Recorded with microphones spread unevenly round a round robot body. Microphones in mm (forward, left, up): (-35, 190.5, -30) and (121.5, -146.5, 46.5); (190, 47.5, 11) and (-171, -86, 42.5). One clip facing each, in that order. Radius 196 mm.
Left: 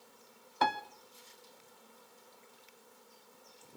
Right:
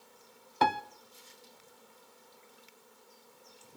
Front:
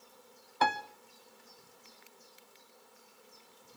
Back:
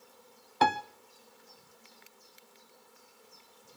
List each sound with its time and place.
0.6 s a piano: 115° right, 0.6 m